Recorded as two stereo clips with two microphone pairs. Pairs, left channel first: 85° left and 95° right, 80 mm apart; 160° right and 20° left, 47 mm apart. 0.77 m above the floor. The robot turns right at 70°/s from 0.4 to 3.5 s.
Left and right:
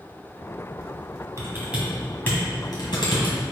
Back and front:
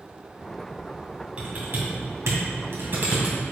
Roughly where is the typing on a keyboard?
Ahead right.